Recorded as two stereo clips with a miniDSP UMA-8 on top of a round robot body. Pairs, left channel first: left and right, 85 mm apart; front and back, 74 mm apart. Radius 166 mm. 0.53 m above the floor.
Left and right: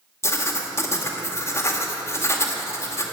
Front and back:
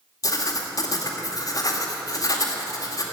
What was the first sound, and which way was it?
Writing, 35° left.